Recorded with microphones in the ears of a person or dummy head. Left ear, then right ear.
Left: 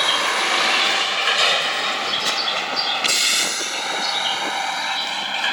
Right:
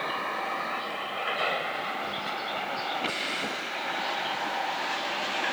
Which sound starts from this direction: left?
A vehicle, at 0.0 s.